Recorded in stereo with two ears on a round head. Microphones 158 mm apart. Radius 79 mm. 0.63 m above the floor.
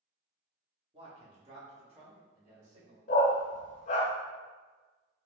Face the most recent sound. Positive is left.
turn(degrees=45)  # may be behind; listen again after turning